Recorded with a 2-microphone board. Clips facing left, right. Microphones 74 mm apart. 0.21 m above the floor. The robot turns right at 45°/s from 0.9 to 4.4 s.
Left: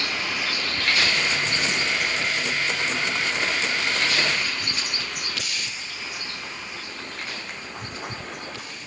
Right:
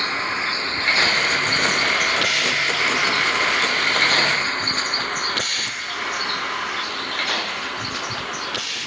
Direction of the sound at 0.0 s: 40° right (ahead or behind).